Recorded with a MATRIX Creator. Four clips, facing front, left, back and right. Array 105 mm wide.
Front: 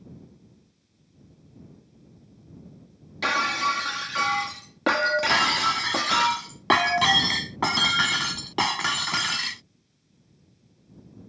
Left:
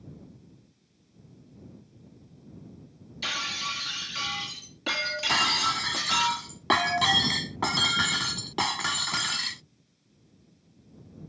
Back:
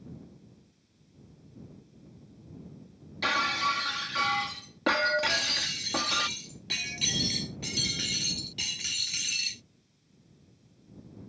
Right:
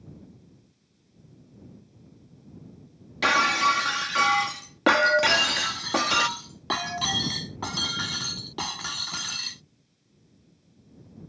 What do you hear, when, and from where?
3.2 s breaking glass: 70° right
5.3 s breaking glass: 15° left